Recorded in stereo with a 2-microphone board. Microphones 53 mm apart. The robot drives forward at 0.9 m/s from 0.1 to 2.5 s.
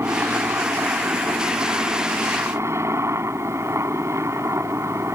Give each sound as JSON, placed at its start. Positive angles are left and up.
{"t": 0.0, "sound": "a helicopter", "side_deg": -60}